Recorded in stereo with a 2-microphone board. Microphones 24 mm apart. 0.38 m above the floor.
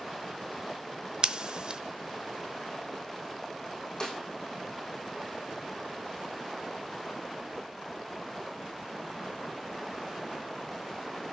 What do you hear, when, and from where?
1.2 s scissors: 45° right (ahead or behind), 0.5 m
4.0 s a snare drum: 35° left (ahead or behind), 2.5 m